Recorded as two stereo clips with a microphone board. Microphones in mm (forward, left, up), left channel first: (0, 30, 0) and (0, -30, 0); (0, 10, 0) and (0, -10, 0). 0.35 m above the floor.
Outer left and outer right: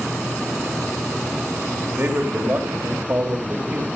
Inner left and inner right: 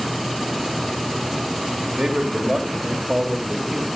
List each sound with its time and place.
2.0 s a man speaking: 40° right (ahead or behind), 1.1 m